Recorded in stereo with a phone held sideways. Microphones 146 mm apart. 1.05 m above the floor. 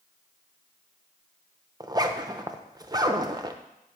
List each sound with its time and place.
1.8 s a zipper: 25° right (ahead or behind), 0.5 m